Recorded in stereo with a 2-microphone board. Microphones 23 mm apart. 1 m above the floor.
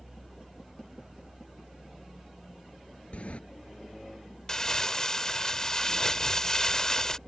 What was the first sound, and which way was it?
A sliding door, 55° left (ahead or behind).